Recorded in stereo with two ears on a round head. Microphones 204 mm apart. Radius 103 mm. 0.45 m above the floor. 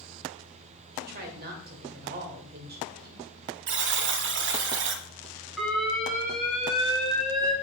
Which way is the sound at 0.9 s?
45° right (ahead or behind).